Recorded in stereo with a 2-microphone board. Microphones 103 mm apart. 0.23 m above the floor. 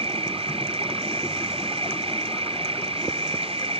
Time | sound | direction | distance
0.0 | an insect | 65° right (ahead or behind) | ?